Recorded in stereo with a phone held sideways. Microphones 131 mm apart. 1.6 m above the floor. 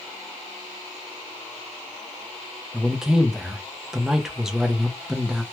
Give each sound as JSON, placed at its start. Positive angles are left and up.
{"t": 2.7, "sound": "a man speaking", "side_deg": -5, "distance_m": 0.7}